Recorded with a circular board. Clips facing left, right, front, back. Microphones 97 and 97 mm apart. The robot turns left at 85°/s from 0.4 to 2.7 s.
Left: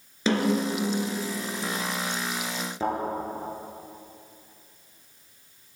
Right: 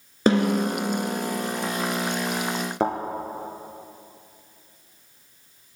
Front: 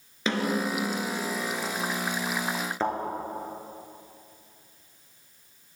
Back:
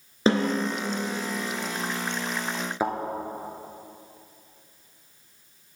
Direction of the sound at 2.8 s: 100° right.